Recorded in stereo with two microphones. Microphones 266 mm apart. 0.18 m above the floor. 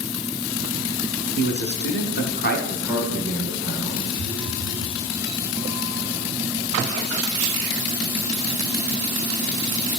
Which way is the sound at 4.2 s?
Centre (ahead or behind).